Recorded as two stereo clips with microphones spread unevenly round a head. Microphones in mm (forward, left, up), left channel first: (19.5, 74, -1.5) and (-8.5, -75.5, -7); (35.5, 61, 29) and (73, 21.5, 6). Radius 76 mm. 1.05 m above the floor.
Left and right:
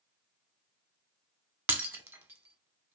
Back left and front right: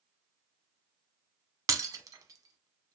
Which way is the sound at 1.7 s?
25° right.